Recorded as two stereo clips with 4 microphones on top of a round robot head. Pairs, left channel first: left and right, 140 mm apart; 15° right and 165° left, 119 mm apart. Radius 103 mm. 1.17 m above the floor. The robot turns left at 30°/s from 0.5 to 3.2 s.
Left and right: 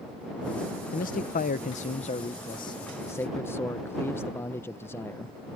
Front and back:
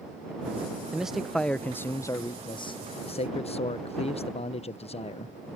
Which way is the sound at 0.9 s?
85° left.